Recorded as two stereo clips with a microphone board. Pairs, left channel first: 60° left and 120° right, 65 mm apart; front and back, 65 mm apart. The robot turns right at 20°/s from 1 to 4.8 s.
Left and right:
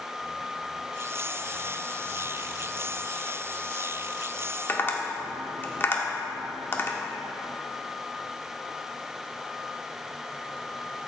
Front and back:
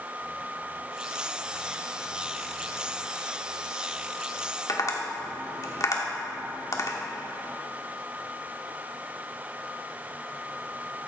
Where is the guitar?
I don't hear a guitar.